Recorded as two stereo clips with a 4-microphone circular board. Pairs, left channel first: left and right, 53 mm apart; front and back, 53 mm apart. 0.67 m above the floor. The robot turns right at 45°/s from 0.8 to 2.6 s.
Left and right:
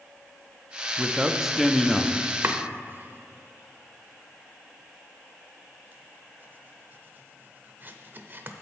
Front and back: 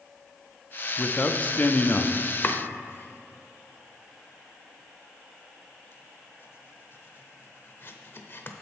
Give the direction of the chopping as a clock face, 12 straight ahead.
2 o'clock.